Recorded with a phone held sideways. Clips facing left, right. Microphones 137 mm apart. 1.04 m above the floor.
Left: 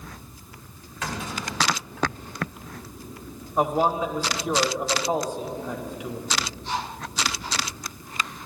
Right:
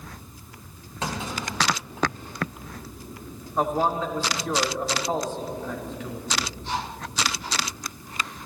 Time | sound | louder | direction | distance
1.0 | a clunk | right 1 dB | 30° right (ahead or behind) | 2.5 m
3.6 | a man speaking | left 2 dB | 10° left (ahead or behind) | 0.9 m